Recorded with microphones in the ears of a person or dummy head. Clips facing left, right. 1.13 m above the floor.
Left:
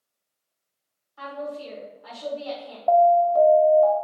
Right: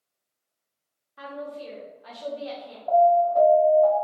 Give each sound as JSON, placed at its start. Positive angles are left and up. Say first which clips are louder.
{"t": 1.2, "sound": "a woman speaking", "louder": "left 3 dB", "side_deg": -25, "distance_m": 1.0}
{"t": 2.9, "sound": "an alarm", "louder": "left 1 dB", "side_deg": 90, "distance_m": 0.8}